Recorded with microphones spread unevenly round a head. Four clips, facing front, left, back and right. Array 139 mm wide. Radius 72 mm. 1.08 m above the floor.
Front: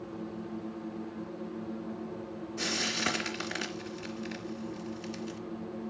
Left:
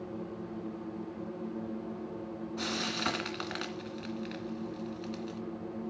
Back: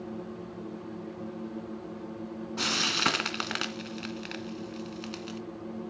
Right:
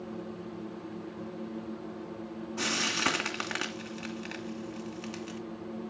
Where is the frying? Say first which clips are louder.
Right 4 dB, back 4 dB; 140° right, 2.5 m.